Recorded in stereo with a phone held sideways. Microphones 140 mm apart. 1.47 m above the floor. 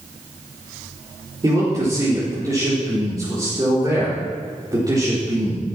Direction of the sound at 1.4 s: 25° right (ahead or behind).